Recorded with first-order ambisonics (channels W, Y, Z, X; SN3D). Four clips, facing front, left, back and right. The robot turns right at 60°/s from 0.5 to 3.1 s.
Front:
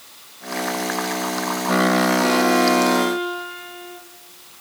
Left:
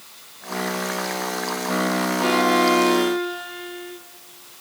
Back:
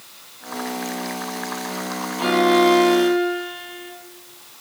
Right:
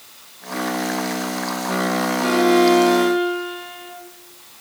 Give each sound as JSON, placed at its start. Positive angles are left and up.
{"t": 2.2, "sound": "a violin", "azimuth_deg": -160, "distance_m": 3.0}